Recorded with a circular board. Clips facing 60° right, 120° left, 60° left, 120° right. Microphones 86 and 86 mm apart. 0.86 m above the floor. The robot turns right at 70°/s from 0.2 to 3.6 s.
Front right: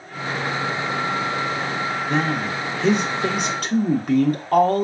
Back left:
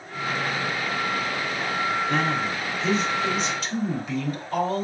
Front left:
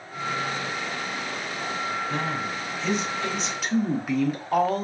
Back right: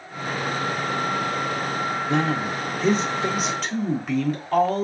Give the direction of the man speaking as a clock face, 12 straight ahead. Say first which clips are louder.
Front right 2 dB, back right 5 dB; 4 o'clock.